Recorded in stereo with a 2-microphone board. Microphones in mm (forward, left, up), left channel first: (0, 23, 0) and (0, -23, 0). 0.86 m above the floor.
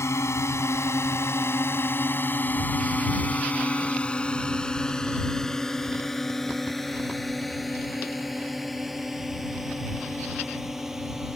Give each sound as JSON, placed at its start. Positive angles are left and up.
{"t": 0.0, "sound": "a drone", "side_deg": 85}